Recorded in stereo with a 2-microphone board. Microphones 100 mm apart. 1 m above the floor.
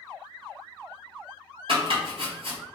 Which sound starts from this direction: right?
Chopping, at 1.7 s.